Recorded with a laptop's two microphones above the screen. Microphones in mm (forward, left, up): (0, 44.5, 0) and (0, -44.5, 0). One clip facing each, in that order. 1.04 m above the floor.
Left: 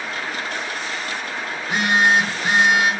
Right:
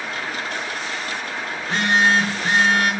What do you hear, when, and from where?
1.6 s a phone buzzing: 15° left (ahead or behind), 0.5 m